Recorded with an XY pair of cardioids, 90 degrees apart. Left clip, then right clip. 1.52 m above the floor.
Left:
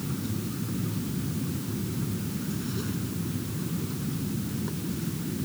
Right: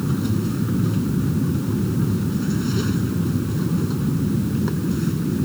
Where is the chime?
I don't hear a chime.